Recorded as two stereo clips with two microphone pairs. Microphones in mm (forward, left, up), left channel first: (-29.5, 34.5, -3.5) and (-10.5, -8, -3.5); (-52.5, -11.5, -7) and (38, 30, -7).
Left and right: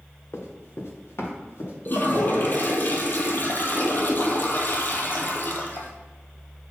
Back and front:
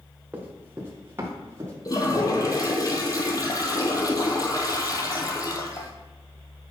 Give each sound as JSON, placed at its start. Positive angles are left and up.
{"t": 0.3, "sound": "running footsteps", "azimuth_deg": 100, "distance_m": 1.8}
{"t": 1.9, "sound": "a toilet flushing", "azimuth_deg": 155, "distance_m": 1.1}